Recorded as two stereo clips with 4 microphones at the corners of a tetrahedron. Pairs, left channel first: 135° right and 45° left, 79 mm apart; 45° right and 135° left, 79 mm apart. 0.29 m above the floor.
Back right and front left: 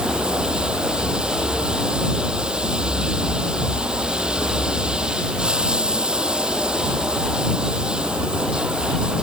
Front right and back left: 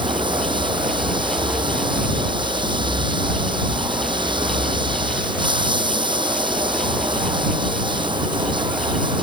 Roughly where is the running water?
Behind left.